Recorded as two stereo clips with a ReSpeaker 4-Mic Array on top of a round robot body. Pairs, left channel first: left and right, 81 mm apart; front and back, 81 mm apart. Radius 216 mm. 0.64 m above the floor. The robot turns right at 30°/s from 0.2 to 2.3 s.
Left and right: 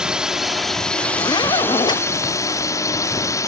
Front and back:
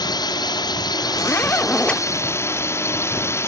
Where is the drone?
10° right; by 3.5 s 50° left.